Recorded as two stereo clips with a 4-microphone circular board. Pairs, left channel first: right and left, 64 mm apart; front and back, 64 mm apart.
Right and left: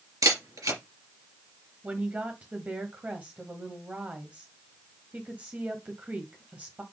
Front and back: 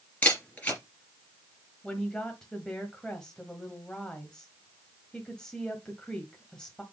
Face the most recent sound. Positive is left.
turn(degrees=65)